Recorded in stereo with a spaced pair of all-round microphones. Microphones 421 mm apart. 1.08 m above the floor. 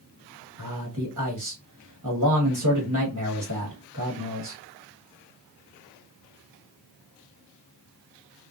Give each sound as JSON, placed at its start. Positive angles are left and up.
{"t": 0.6, "sound": "a man speaking", "side_deg": -45, "distance_m": 1.4}